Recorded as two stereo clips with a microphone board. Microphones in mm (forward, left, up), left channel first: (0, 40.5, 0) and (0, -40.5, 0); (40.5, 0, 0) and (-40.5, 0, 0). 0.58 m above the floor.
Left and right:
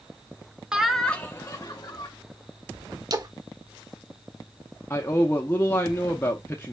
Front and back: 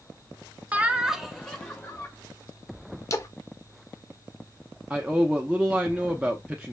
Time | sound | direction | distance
0.7 | laughter | 150° right | 0.6 m
3.1 | a splash | 50° right | 0.6 m
4.9 | a man speaking | 115° left | 0.7 m